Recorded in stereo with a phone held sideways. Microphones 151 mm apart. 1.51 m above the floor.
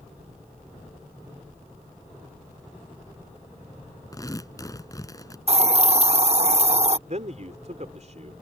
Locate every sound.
4.1 s tearing paper: 25° left (ahead or behind)
5.5 s a hiss: 45° right (ahead or behind)
7.1 s a man speaking: 50° right (ahead or behind)